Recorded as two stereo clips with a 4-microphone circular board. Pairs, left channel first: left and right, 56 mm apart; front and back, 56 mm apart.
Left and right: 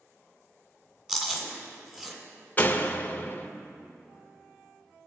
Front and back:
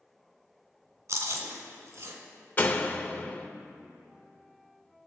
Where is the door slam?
40° left, 0.7 m.